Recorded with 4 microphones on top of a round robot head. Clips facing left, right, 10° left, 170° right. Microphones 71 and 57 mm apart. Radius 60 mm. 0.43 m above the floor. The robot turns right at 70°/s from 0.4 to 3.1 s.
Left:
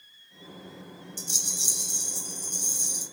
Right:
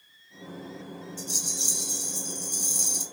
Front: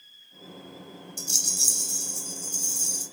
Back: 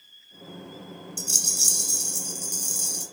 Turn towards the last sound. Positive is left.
turn(degrees=-110)